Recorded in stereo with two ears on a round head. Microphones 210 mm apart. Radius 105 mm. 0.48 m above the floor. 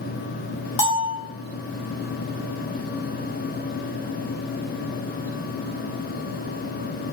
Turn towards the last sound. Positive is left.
turn(degrees=60)  # may be behind; listen again after turning